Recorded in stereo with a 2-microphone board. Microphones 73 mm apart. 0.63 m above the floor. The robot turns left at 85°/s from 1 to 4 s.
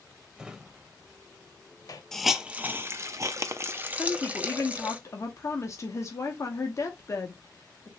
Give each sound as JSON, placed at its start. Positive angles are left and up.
{"t": 0.4, "sound": "a drawer", "side_deg": -10, "distance_m": 0.6}
{"t": 2.1, "sound": "a hiss", "side_deg": 5, "distance_m": 0.5}
{"t": 4.0, "sound": "a woman speaking", "side_deg": 45, "distance_m": 1.0}